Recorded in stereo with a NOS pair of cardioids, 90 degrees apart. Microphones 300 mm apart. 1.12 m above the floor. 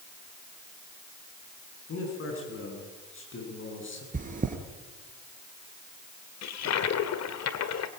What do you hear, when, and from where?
1.9 s a man speaking: 45° left, 10 m; by 4.0 s 40° left, 10.5 m
4.1 s chewing: 30° right, 3.5 m
6.4 s a toilet flushing: 65° left, 1.8 m